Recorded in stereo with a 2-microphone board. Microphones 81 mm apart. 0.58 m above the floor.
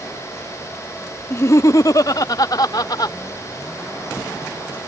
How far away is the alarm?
No alarm in this recording.